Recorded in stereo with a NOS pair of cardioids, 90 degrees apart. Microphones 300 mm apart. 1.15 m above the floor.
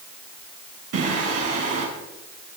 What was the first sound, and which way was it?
Singing, 55° right.